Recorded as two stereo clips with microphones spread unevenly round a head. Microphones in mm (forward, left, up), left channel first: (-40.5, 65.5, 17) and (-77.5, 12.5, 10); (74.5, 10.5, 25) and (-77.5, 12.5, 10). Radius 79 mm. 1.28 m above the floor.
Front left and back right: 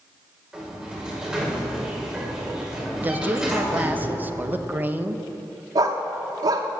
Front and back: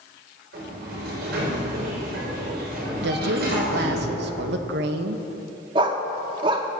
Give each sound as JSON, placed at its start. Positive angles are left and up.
{"t": 0.5, "sound": "a sliding door", "azimuth_deg": 160, "distance_m": 6.5}
{"t": 3.0, "sound": "a woman speaking", "azimuth_deg": 175, "distance_m": 1.4}
{"t": 5.8, "sound": "a dog barking", "azimuth_deg": -120, "distance_m": 1.0}